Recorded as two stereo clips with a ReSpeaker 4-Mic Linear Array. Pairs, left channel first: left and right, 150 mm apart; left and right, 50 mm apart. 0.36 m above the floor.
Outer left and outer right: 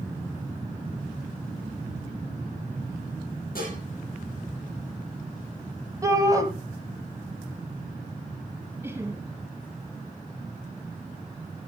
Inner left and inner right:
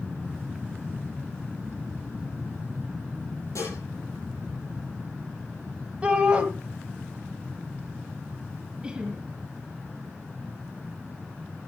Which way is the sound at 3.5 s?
85° left.